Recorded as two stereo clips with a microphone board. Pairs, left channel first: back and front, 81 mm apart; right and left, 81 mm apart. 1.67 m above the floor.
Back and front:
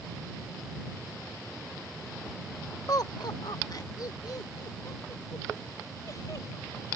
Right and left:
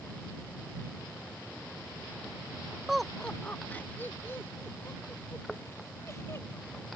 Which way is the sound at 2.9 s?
175° left.